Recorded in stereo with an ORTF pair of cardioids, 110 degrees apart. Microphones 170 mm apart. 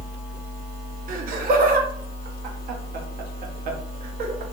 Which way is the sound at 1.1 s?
60° right.